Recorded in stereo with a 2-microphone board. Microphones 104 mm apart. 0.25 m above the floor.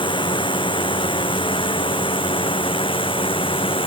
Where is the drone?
55° left (ahead or behind); by 3.9 s 60° left (ahead or behind).